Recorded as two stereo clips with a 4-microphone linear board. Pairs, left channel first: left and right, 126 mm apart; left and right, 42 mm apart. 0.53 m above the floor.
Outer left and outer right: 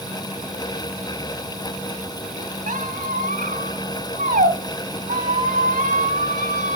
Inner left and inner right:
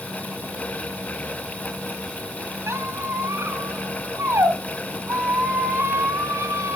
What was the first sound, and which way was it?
A squeak, 85° right.